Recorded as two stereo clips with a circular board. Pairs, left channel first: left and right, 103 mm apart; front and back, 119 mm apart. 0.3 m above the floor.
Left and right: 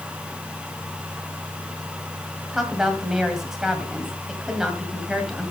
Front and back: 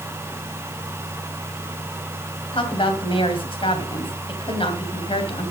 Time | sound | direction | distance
2.5 | a woman speaking | 5° right | 2 m